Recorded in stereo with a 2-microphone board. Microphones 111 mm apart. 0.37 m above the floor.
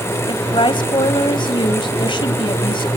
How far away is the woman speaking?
About 1.7 m.